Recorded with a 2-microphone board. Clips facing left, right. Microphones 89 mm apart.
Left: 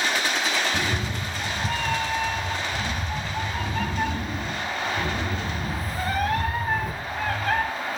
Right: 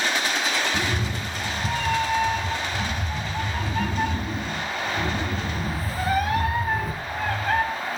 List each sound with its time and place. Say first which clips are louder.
0.7 s a cat meowing: right 1 dB; 10° right (ahead or behind), 2.5 m